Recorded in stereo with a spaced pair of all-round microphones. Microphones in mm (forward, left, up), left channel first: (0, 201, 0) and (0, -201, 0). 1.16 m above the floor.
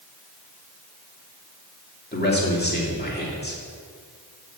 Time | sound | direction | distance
2.1 | a man speaking | 25° left (ahead or behind) | 2.5 m